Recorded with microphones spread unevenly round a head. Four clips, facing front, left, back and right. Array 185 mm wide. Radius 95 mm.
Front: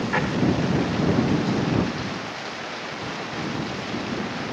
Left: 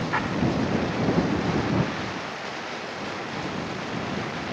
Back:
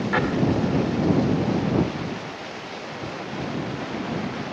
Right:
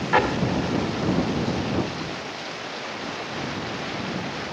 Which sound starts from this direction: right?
An explosion, at 0.1 s.